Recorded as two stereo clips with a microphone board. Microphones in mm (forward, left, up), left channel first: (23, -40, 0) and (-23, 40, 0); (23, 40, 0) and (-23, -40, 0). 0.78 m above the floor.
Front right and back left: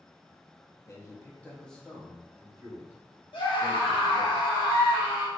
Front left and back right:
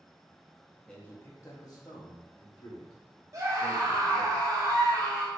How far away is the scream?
About 1.0 m.